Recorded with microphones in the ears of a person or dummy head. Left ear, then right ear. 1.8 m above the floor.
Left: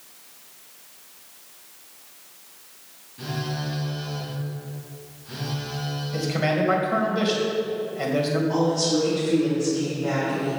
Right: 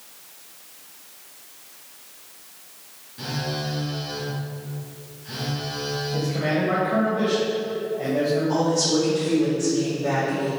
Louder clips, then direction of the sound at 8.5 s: Right 1 dB; 10° right (ahead or behind).